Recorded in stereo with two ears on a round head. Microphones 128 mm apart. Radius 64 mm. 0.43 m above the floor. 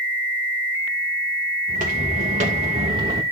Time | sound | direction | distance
1.7 | footsteps | 65° right (ahead or behind) | 4 m